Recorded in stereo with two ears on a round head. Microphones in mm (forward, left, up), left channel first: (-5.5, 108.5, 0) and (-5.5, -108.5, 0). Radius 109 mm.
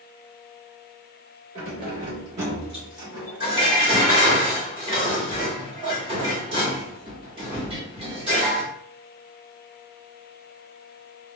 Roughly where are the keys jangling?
Right.